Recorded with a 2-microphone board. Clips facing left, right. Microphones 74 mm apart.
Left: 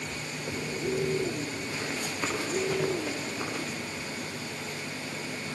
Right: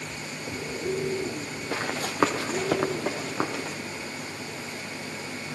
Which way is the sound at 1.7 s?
70° right (ahead or behind).